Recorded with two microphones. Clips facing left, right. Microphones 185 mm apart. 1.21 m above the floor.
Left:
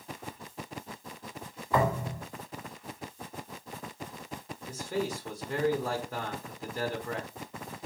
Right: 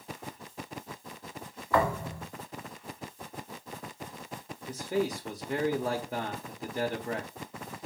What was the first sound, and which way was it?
A thud, 20° left (ahead or behind).